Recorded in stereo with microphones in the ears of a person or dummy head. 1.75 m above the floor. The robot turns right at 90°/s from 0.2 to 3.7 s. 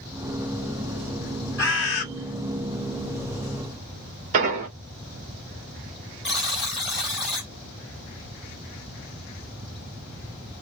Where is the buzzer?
5° right (ahead or behind), 1.5 m.